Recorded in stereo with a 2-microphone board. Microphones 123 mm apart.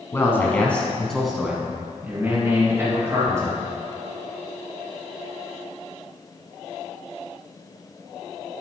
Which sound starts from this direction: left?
A man speaking, at 0.1 s.